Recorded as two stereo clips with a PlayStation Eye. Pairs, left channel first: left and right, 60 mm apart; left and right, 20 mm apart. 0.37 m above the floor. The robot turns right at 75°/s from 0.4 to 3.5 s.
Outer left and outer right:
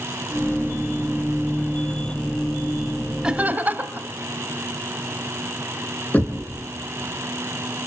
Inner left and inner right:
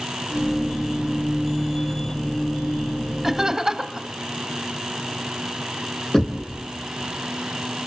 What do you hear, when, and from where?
3.2 s laughter: 10° right (ahead or behind), 1.7 m; by 4.1 s 30° right (ahead or behind), 1.7 m
6.1 s knocking: 25° left (ahead or behind), 3 m